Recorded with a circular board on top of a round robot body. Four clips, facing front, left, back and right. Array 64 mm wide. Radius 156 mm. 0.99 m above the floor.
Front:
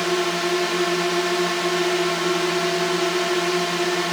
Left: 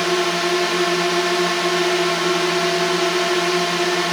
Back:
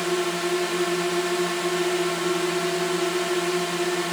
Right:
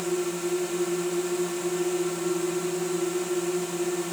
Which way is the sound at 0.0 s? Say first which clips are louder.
Left 9 dB, front 3 dB; 75° left.